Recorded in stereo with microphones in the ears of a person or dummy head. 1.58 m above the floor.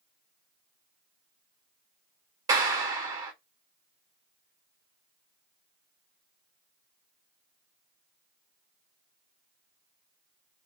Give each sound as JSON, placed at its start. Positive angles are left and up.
{"t": 2.5, "sound": "a clap", "side_deg": -25, "distance_m": 1.6}